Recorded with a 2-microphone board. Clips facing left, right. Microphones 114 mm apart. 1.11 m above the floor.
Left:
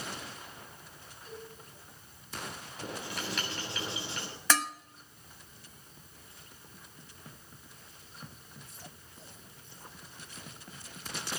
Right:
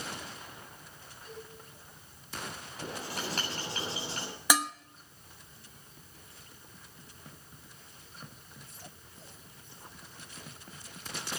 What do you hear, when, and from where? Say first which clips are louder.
1.2 s a cowbell: left 1 dB; 5° left (ahead or behind), 6 m
2.8 s writing: right 1 dB; 40° right (ahead or behind), 7 m
4.5 s dishes clattering: right 1 dB; 15° right (ahead or behind), 0.9 m